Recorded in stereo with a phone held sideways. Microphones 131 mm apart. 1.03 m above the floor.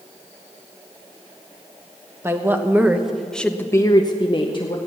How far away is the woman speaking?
About 1.4 m.